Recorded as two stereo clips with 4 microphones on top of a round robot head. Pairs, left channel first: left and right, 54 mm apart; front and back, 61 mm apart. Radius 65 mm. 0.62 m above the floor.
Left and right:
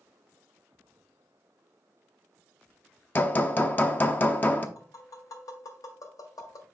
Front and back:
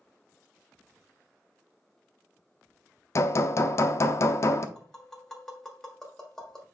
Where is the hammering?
35° left, 0.8 m.